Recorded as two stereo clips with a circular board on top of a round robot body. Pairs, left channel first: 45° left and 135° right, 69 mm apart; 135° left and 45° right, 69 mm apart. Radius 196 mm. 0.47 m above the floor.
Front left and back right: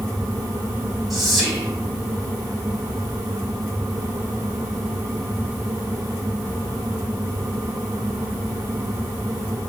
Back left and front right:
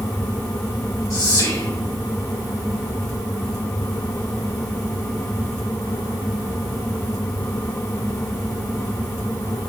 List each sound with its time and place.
1.1 s whispering: 135° left, 1.9 m